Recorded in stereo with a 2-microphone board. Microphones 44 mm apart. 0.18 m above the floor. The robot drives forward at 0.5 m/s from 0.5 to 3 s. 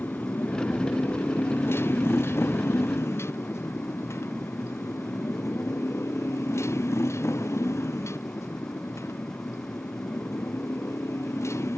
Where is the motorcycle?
50° left (ahead or behind); by 11.8 s 85° left.